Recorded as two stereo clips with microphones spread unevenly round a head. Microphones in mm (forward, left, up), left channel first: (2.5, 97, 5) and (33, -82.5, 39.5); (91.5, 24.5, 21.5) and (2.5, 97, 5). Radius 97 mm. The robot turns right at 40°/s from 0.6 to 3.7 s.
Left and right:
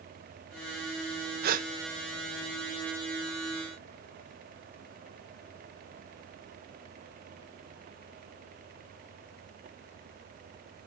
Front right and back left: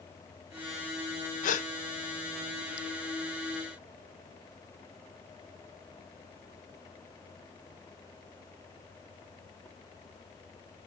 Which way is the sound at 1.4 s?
40° right.